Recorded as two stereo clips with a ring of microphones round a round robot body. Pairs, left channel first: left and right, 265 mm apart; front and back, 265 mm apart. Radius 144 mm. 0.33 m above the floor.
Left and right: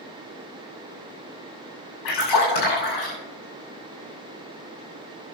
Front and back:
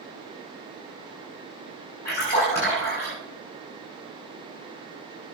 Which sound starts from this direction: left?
A splash, at 2.0 s.